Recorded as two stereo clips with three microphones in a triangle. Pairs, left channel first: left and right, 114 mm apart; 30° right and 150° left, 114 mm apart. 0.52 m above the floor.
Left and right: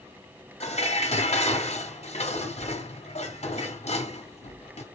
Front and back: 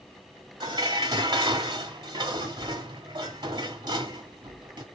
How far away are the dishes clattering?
About 3 m.